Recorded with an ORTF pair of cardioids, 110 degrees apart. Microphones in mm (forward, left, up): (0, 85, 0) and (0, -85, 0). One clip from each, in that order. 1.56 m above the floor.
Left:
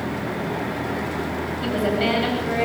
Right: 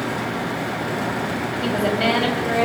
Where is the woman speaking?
15° right, 9 m; by 2.7 s 25° right, 9.5 m.